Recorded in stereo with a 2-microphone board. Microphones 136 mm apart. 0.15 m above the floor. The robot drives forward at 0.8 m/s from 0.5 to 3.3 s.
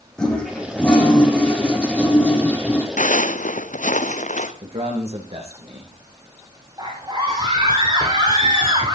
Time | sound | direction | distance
0.2 | a toilet flushing | 5° left (ahead or behind) | 5.5 m
3.0 | footsteps | 70° left (ahead or behind) | 1.9 m
4.6 | a man speaking | 50° right (ahead or behind) | 9 m
6.8 | a scream | 30° right (ahead or behind) | 4.5 m